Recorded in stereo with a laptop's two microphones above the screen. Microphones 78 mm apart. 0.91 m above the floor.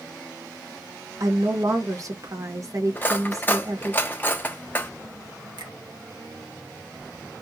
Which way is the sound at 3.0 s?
25° left (ahead or behind).